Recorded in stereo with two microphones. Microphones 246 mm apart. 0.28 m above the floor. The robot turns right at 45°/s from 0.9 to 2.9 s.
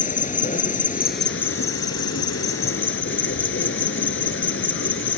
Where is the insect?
35° left, 0.8 m; by 5.2 s 125° left, 0.8 m.